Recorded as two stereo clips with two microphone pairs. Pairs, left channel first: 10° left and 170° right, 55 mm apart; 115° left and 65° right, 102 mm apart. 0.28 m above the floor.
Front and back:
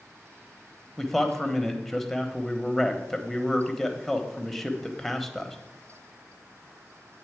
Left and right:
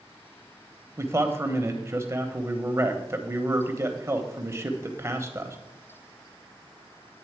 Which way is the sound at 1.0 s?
70° right.